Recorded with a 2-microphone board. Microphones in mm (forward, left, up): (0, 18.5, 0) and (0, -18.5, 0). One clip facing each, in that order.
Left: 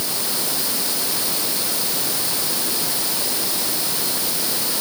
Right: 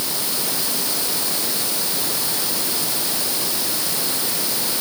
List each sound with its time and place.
Only background noise.